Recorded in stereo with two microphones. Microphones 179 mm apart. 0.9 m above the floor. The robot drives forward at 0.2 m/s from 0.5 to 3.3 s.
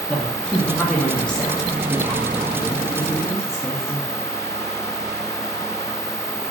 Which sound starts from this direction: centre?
A woman speaking, at 0.1 s.